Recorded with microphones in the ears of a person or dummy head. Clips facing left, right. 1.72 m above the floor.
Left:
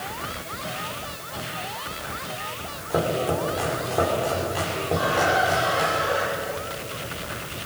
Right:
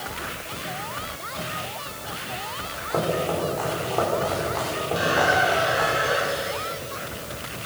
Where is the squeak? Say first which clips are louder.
Right 1 dB; 25° right (ahead or behind), 6.5 m.